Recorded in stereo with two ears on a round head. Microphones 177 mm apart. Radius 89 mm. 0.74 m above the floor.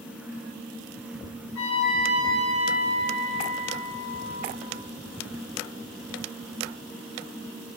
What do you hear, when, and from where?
1.6 s a trumpet: 75° left (ahead or behind), 3.5 m